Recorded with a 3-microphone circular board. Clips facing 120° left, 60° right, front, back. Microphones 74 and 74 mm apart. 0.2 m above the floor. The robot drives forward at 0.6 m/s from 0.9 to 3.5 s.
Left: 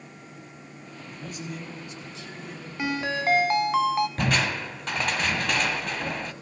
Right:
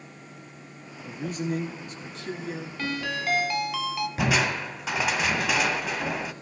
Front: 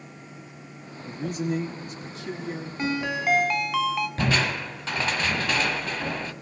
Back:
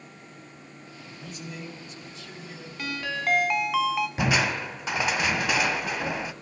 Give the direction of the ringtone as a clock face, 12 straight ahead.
10 o'clock.